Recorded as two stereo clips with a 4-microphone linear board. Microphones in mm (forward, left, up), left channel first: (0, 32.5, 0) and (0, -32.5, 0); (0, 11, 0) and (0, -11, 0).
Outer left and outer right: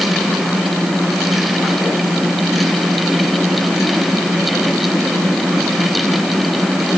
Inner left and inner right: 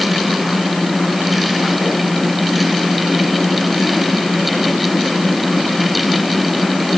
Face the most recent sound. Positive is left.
No sound to turn to.